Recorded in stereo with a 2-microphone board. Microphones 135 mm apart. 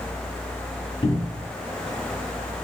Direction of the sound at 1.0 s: 35° left (ahead or behind).